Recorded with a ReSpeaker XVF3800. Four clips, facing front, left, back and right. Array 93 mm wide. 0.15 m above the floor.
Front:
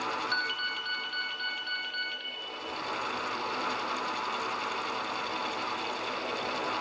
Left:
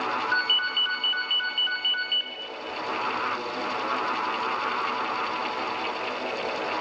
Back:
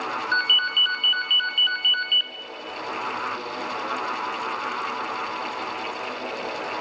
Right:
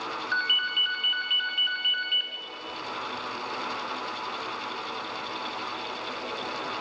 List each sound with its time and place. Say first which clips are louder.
0.3 s a ringtone: left 2 dB, back 9 dB; 175° left, 0.8 m